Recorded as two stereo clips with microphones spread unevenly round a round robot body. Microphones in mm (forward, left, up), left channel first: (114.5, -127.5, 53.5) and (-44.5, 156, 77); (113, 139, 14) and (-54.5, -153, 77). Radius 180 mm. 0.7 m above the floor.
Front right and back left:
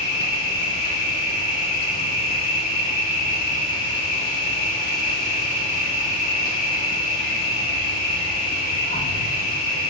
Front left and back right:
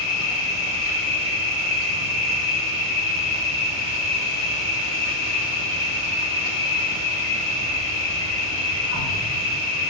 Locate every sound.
0.0 s an insect: 5° left, 7.5 m